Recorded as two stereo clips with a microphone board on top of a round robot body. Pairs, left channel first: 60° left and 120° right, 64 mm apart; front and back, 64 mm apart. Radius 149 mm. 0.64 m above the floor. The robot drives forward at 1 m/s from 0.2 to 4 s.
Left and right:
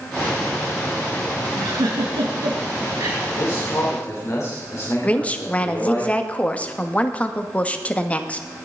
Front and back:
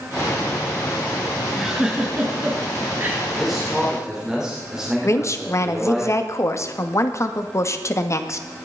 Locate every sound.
1.5 s a giggle: 95° right, 2.5 m; by 3.2 s 130° right, 3 m
3.4 s a man speaking: 90° left, 3 m; by 6.0 s 100° left, 3 m
5.0 s a woman speaking: straight ahead, 1.3 m